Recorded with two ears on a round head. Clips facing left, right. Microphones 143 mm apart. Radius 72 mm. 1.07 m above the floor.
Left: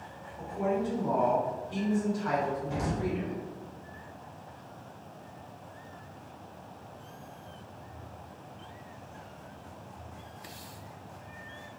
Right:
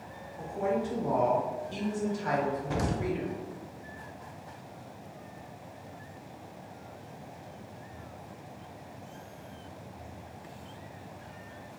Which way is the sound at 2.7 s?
65° right (ahead or behind).